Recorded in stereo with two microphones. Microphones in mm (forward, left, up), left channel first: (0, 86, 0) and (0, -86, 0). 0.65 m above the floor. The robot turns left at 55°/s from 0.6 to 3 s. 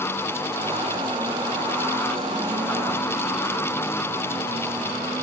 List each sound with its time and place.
Only background noise.